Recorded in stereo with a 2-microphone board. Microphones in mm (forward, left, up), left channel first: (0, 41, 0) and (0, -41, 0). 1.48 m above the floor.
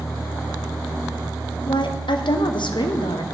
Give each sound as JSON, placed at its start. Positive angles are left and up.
{"t": 1.7, "sound": "a woman speaking", "side_deg": 75, "distance_m": 0.9}